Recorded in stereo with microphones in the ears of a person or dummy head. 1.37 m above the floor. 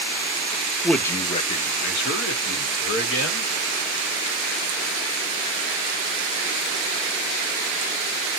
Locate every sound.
0.8 s a man speaking: centre (ahead or behind), 0.6 m; by 3.5 s 85° left, 1.6 m